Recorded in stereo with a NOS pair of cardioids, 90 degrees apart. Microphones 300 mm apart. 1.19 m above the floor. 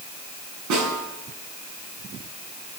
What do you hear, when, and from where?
0.7 s a snare drum: 70° right, 7 m